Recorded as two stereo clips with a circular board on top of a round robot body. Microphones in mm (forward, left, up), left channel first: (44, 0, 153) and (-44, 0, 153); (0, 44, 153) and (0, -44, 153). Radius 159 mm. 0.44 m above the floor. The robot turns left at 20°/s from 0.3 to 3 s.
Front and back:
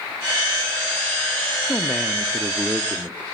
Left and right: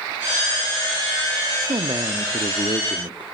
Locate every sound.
1.7 s a man speaking: 80° right, 1.1 m; by 3.2 s 105° right, 1.1 m